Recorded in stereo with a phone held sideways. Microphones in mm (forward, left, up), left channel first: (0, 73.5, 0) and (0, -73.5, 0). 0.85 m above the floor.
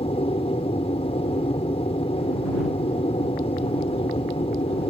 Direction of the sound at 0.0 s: 40° left (ahead or behind).